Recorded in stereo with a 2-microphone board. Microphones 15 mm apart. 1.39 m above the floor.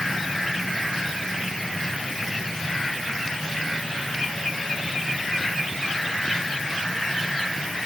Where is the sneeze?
No sneeze in this recording.